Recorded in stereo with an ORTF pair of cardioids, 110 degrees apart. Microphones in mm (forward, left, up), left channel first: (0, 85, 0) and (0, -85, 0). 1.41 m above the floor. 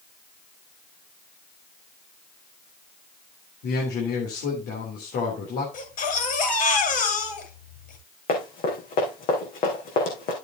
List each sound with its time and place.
3.6 s a man speaking: 70° left, 3.5 m
5.7 s a baby crying: 60° left, 6.5 m
8.3 s running footsteps: 65° left, 4.5 m